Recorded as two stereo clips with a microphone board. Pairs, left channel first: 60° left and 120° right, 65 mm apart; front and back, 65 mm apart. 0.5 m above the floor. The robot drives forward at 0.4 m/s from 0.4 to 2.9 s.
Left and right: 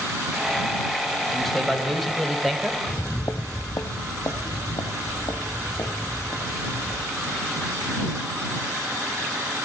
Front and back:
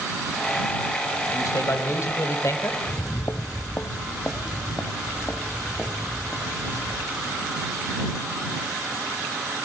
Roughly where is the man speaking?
Ahead right.